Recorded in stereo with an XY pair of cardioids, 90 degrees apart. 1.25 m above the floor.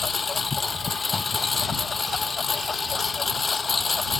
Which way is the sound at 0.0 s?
35° left.